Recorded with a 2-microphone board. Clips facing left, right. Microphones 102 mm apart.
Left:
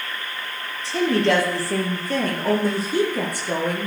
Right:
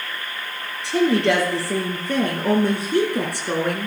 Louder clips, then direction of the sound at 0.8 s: Right 2 dB; 70° right (ahead or behind).